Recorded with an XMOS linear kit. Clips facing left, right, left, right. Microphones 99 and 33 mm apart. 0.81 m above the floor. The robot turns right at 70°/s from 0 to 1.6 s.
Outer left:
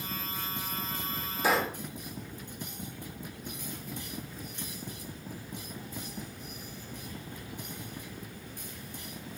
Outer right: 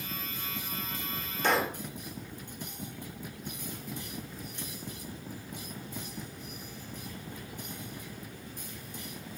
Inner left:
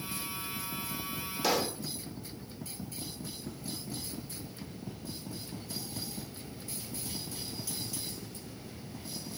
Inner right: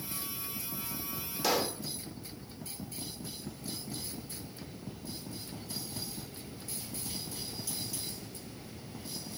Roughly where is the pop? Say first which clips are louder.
Even, even; centre.